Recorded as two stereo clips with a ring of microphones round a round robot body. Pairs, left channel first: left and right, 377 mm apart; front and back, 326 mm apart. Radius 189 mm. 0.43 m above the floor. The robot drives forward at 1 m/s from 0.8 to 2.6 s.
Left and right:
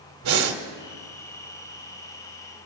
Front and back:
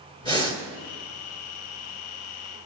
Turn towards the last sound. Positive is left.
turn(degrees=-150)